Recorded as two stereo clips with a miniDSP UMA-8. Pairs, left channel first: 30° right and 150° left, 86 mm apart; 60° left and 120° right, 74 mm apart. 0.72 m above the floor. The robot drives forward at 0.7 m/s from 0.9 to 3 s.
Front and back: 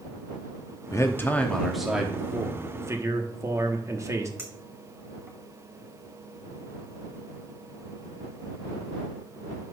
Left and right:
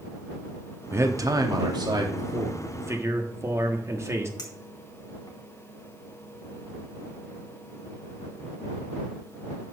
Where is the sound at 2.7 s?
160° right, 1.2 m.